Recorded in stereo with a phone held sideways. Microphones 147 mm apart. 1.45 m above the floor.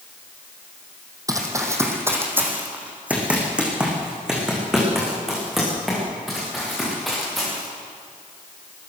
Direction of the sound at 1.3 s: 25° right (ahead or behind).